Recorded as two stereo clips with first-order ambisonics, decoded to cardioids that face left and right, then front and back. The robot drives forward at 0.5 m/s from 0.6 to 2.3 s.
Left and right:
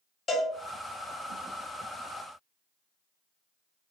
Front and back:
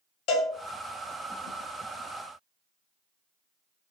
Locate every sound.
0.3 s a cowbell: 25° left, 0.8 m